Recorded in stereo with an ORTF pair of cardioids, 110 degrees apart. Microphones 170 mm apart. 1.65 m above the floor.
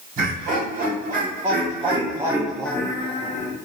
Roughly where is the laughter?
Ahead right.